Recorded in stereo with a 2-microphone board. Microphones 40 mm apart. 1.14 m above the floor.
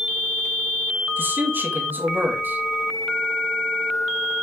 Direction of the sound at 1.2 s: 55° right (ahead or behind).